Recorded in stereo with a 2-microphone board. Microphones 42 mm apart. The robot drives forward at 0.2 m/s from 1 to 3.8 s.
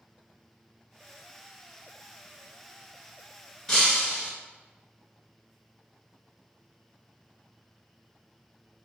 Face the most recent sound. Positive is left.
turn(degrees=10)  # may be behind; listen again after turning